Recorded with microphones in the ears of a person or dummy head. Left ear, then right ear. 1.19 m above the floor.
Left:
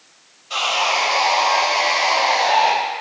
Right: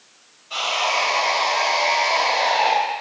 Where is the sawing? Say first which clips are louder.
Left 3 dB; 25° left (ahead or behind), 0.7 m.